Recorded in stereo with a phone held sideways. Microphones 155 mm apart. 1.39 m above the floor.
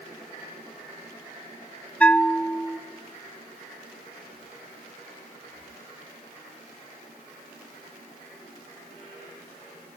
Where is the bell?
10° left (ahead or behind), 0.6 m.